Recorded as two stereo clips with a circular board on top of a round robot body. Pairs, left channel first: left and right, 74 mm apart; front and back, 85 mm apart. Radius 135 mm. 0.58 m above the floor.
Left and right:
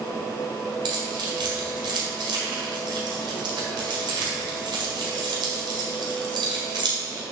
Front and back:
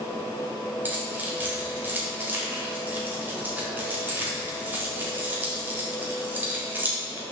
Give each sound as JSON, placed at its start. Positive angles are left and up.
{"t": 0.8, "sound": "keys jangling", "azimuth_deg": -110, "distance_m": 1.8}